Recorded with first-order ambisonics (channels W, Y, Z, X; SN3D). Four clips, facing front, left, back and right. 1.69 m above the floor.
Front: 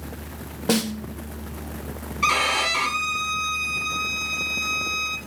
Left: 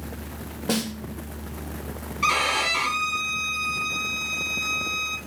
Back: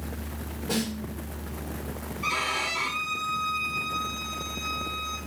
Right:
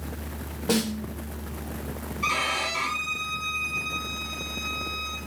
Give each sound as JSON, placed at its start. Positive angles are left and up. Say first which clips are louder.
{"t": 0.7, "sound": "a snare drum", "louder": "right 1 dB, front 7 dB", "azimuth_deg": 5, "distance_m": 1.5}
{"t": 2.2, "sound": "a violin", "louder": "left 4 dB, front 7 dB", "azimuth_deg": 30, "distance_m": 1.2}